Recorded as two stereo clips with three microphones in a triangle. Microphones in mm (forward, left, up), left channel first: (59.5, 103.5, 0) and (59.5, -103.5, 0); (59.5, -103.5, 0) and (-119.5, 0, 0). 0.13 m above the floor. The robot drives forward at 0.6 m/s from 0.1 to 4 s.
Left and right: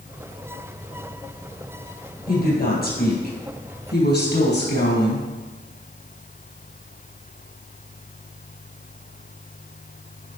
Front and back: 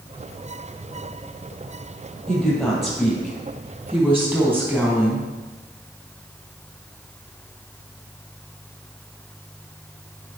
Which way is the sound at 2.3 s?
55° left.